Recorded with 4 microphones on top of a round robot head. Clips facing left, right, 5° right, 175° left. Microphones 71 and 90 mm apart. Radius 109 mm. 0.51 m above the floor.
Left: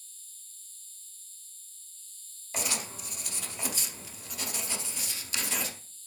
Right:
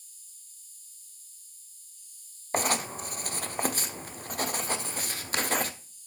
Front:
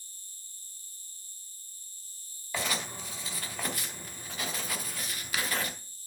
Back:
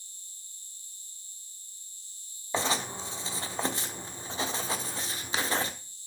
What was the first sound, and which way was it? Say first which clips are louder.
An insect: left 3 dB, even; 20° right.